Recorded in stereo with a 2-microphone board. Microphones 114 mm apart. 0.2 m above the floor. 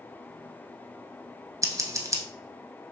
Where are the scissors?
30° right (ahead or behind), 0.8 m.